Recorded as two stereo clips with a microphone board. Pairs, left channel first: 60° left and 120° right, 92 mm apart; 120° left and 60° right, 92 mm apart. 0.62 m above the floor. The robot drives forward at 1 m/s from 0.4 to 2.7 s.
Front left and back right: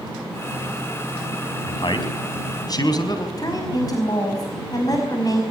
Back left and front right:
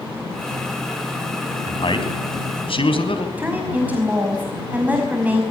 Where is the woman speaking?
15° left, 5 m.